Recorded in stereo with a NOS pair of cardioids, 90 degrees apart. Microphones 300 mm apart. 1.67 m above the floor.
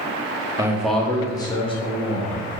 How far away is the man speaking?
About 0.6 m.